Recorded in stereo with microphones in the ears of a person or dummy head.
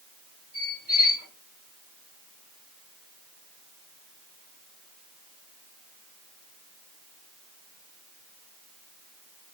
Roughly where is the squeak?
Centre.